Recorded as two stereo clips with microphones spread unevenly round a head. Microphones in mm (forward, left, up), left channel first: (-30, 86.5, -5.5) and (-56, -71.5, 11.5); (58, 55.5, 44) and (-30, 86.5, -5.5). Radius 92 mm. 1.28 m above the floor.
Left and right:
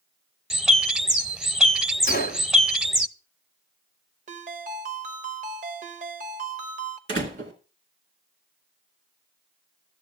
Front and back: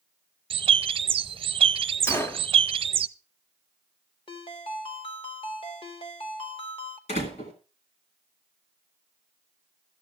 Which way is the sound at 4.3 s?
50° right.